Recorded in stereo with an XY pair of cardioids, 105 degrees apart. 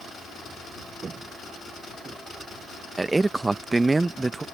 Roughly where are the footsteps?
Ahead right.